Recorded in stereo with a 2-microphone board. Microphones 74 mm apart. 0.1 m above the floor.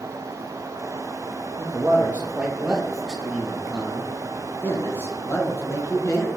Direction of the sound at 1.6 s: 25° right (ahead or behind).